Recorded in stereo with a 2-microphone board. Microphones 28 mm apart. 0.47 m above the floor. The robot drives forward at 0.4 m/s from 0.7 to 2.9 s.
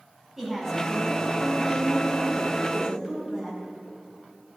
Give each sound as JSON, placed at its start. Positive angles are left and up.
{"t": 0.4, "sound": "a woman speaking", "side_deg": -10, "distance_m": 4.0}